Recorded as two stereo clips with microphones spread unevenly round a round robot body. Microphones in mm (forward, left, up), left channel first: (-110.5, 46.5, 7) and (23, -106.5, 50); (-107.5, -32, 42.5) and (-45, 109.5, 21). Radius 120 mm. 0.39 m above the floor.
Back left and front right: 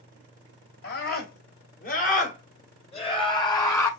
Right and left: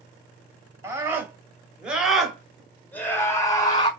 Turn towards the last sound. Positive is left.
turn(degrees=-170)